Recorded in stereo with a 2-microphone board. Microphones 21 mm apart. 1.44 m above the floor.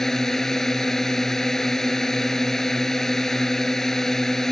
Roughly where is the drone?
Centre.